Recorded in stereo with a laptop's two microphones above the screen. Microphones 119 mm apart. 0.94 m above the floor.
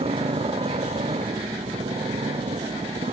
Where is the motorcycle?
55° right (ahead or behind); by 3.1 s 70° right (ahead or behind).